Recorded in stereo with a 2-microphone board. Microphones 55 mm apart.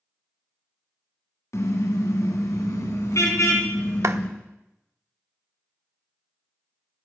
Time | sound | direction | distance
1.5 | a car horn | 70° left (ahead or behind) | 3 m
4.0 | a clap | 60° right (ahead or behind) | 0.7 m